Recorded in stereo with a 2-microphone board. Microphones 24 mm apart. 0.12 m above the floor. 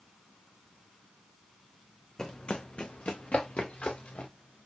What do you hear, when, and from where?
2.2 s running footsteps: 25° left (ahead or behind), 0.5 m; by 4.3 s 80° left, 1.4 m